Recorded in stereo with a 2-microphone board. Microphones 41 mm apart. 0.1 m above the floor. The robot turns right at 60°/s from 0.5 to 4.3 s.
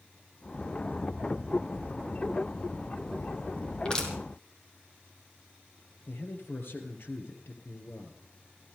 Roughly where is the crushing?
Left.